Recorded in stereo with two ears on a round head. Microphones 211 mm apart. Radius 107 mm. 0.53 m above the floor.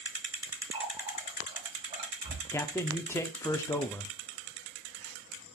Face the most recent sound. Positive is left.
turn(degrees=10)  # may be behind; listen again after turning